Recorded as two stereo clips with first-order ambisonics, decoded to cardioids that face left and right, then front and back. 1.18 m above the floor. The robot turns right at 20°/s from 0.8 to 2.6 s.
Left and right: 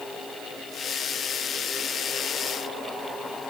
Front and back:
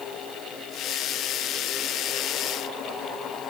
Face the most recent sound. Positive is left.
No sound to turn to.